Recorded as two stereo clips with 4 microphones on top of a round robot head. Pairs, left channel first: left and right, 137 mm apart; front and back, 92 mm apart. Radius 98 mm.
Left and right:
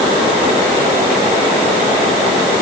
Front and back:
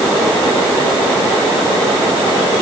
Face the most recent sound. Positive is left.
No sound to turn to.